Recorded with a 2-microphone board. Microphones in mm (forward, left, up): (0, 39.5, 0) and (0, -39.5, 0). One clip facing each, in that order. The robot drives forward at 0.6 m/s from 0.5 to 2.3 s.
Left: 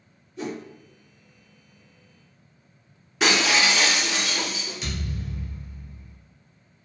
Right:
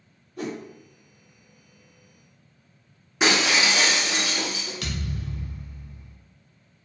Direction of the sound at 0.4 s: 50° right (ahead or behind).